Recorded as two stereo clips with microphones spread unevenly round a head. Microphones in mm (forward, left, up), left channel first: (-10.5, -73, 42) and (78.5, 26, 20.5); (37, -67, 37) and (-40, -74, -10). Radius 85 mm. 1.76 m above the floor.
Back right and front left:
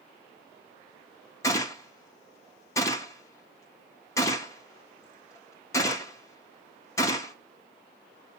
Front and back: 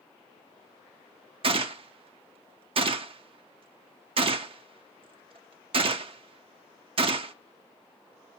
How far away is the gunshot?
About 0.5 m.